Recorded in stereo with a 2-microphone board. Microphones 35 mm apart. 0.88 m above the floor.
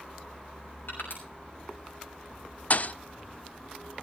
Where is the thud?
45° left (ahead or behind), 0.6 m.